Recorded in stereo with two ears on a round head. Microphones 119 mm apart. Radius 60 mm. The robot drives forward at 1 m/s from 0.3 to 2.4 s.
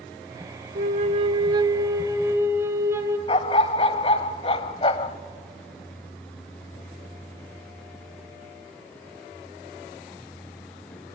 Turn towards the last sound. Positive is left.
turn(degrees=45)  # may be behind; listen again after turning